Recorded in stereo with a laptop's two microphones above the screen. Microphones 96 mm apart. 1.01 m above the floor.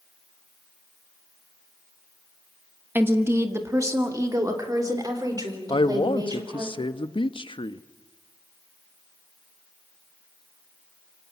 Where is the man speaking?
55° left (ahead or behind), 0.9 m.